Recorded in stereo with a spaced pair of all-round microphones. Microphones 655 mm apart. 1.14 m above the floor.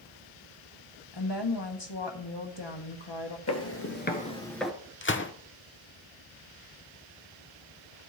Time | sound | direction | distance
1.1 | a woman speaking | 40° left (ahead or behind) | 1.3 m
3.5 | footsteps | 25° left (ahead or behind) | 1.5 m
5.0 | a gunshot | 20° left (ahead or behind) | 0.5 m